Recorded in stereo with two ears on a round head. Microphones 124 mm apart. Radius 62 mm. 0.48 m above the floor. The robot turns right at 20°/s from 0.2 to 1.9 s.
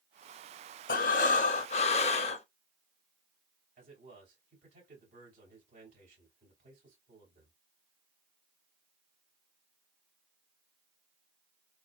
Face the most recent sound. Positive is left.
turn(degrees=-60)  # may be behind; listen again after turning